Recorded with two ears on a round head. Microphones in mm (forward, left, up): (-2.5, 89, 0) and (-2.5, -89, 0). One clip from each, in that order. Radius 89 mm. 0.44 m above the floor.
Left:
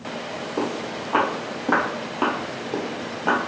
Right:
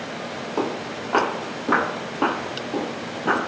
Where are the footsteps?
30° right (ahead or behind), 1.3 m; by 3.4 s 35° left (ahead or behind), 1.3 m.